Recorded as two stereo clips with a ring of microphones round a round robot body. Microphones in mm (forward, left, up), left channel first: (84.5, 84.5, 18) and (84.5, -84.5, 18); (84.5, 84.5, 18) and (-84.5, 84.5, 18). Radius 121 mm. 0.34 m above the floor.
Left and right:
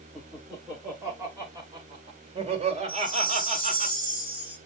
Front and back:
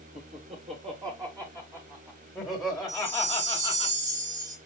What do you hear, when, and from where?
0.1 s laughter: straight behind, 1.5 m; by 3.9 s 70° right, 1.9 m
2.9 s a chime: straight behind, 1.9 m